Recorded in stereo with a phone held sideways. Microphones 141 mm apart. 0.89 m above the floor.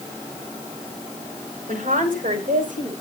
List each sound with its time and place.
1.7 s a woman speaking: 75° right (ahead or behind), 3.5 m; by 2.9 s 80° right, 5 m